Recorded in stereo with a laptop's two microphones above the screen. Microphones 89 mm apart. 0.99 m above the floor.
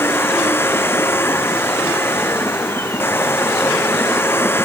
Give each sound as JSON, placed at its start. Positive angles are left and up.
{"t": 0.0, "sound": "a machine running", "side_deg": 25}